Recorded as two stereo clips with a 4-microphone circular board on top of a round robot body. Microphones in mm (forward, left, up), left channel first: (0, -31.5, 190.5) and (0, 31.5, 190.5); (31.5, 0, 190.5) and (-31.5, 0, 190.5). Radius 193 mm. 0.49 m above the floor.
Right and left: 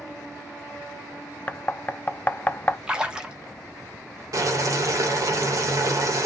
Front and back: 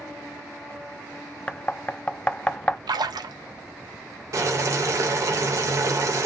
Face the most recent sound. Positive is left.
turn(degrees=135)